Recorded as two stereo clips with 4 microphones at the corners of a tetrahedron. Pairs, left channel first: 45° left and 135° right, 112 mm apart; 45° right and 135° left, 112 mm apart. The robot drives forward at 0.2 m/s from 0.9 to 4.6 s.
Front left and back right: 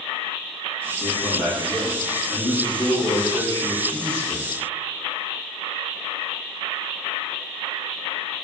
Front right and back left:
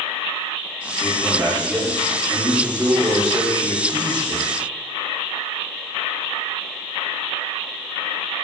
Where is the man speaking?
50° left, 0.9 m; by 4.5 s 110° left, 0.8 m.